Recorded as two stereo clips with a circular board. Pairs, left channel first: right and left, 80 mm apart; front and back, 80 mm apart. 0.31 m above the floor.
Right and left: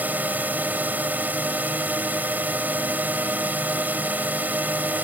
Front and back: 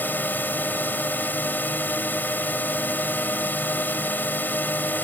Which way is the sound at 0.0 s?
45° left.